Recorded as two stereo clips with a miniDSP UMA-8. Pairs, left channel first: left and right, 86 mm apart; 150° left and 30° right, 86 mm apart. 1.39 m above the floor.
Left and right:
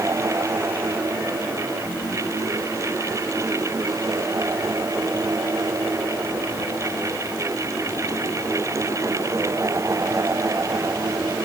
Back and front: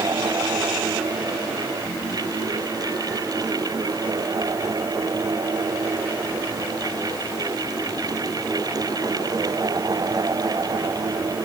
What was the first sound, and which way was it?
Only background noise.